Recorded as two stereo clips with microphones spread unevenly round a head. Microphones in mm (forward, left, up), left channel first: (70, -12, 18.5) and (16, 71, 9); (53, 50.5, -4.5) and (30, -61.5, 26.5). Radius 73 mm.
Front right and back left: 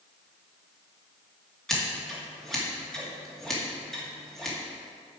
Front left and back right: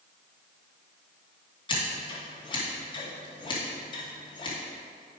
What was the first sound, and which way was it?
Scissors, 30° left.